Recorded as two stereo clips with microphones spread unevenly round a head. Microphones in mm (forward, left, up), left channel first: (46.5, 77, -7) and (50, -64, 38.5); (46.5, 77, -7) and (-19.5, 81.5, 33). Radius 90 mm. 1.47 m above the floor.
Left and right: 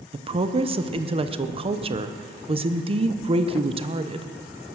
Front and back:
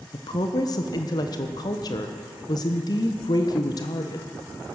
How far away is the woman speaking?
About 0.9 m.